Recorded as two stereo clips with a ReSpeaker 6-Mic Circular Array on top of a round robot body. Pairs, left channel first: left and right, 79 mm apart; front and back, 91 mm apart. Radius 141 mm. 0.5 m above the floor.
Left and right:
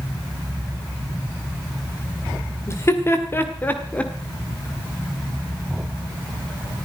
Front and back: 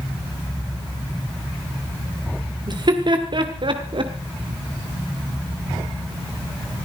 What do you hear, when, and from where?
2.7 s laughter: 145° left, 2 m; by 4.1 s 165° left, 1.5 m